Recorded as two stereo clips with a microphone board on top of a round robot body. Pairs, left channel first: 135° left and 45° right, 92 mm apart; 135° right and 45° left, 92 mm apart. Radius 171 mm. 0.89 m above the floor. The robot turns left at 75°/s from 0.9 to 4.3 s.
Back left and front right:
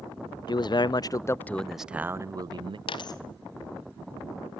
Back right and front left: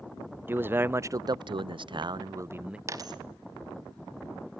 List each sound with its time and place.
0.5 s a man speaking: 110° left, 0.5 m; by 2.8 s 35° right, 0.5 m
2.9 s a dropped coin: 105° left, 0.7 m; by 3.2 s 80° left, 0.7 m